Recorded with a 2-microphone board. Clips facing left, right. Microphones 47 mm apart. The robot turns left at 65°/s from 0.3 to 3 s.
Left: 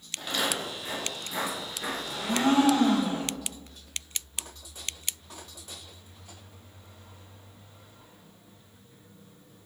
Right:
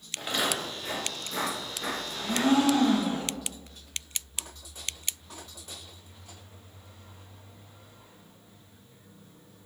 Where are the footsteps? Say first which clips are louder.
Even; 20° right (ahead or behind), 1.5 m; by 3.0 s 45° right (ahead or behind), 2 m.